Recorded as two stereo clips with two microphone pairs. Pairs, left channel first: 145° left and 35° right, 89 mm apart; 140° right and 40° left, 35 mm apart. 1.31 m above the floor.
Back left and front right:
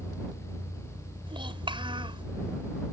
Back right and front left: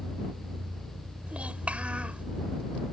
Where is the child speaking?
15° right.